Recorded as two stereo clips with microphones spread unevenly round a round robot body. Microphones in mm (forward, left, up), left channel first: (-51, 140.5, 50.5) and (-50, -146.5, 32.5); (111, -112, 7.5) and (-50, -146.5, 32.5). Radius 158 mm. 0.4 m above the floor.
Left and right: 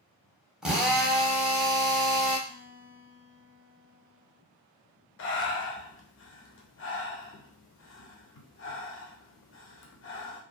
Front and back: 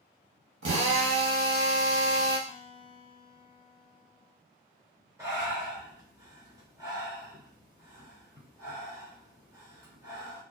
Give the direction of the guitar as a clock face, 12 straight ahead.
1 o'clock.